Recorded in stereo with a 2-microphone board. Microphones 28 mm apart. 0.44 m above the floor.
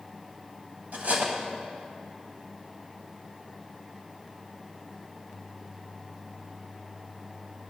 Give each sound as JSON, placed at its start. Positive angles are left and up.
{"t": 0.9, "sound": "cutlery clinking", "side_deg": -65, "distance_m": 1.7}